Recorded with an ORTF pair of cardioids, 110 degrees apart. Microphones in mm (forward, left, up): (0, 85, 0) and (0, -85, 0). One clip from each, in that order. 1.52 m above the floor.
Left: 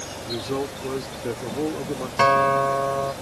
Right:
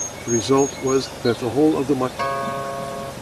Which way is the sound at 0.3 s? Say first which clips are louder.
Right 10 dB; 60° right.